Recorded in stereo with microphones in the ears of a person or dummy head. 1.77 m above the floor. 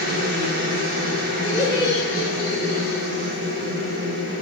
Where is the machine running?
55° right (ahead or behind), 1.0 m.